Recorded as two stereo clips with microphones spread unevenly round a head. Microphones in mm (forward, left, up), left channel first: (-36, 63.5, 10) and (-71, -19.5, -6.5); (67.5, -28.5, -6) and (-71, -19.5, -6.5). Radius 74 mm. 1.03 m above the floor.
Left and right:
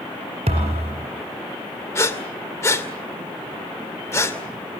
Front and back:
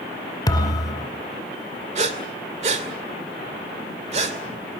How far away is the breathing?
About 2.5 m.